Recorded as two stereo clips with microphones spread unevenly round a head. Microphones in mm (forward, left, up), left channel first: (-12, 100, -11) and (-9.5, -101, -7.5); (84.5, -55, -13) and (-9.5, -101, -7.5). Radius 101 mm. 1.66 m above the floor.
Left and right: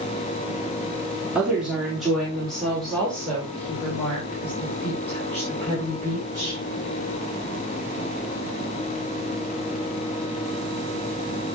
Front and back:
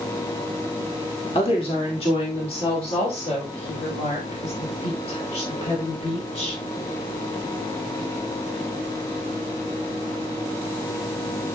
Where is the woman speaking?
5° right, 3.5 m; by 6.6 s 10° left, 8.5 m.